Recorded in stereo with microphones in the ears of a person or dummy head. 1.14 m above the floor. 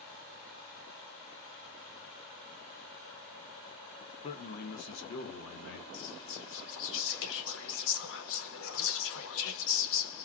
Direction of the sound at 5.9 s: 70° left (ahead or behind).